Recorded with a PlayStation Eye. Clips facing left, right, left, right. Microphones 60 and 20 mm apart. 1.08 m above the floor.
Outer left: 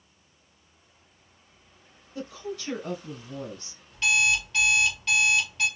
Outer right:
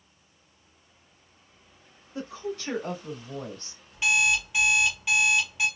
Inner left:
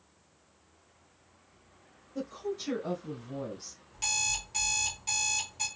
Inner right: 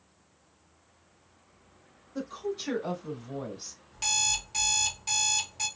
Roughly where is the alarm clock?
Centre.